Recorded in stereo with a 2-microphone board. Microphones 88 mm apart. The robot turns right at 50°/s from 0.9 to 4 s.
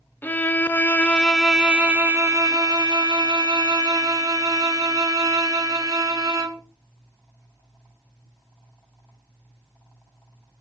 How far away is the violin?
About 0.8 m.